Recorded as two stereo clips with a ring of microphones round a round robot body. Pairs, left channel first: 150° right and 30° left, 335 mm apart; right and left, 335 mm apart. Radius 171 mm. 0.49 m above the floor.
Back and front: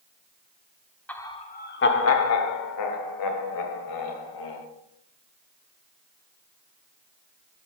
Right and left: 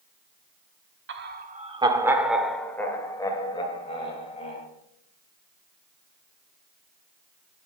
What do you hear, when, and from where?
1.1 s laughter: 125° left, 1.1 m; by 4.7 s 160° right, 3 m